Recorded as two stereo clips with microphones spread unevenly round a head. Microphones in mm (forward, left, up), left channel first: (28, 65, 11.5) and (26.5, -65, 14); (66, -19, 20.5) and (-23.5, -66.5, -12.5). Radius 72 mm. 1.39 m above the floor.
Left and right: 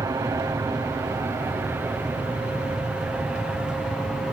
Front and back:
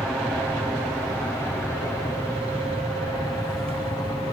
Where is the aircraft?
80° right; by 4.3 s 10° right.